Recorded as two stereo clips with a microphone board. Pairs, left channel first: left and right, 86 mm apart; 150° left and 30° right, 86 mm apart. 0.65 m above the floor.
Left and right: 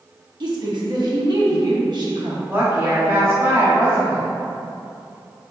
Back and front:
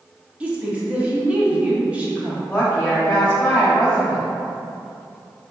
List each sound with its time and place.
0.4 s a woman speaking: 100° right, 0.9 m
2.5 s a woman speaking: 140° right, 1.4 m